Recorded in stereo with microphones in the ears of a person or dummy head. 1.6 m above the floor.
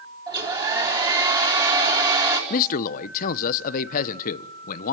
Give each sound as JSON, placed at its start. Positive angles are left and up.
{"t": 0.3, "sound": "a hair dryer", "side_deg": -25, "distance_m": 3.5}
{"t": 2.5, "sound": "a man speaking", "side_deg": 45, "distance_m": 0.9}